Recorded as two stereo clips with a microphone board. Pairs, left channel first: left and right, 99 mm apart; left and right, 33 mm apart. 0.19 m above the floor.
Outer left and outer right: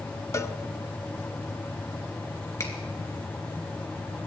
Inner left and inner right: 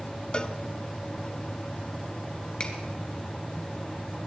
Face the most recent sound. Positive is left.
turn(degrees=30)  # may be behind; listen again after turning